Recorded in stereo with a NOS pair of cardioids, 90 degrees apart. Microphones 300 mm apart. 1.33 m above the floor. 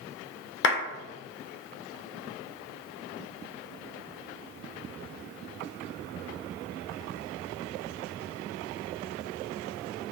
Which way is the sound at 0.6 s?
35° left.